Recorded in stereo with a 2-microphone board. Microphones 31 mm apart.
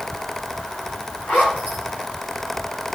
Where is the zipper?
80° left, 4 m.